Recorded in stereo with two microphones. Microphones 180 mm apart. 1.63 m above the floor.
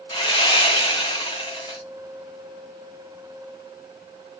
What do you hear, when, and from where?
0.1 s sawing: 25° left (ahead or behind), 0.6 m